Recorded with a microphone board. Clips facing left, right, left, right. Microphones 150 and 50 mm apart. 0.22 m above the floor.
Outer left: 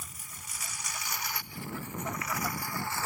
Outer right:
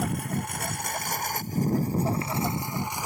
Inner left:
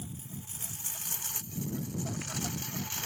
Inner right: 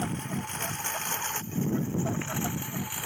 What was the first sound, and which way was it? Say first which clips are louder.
A lawn mower: outer right 22 dB, inner right 13 dB; 65° right (ahead or behind).